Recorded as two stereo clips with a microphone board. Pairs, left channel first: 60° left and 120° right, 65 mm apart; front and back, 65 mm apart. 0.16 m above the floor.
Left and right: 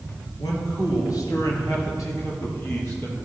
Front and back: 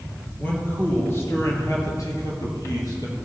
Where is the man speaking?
70° left, 3.5 m; by 3.1 s 10° left, 4.5 m.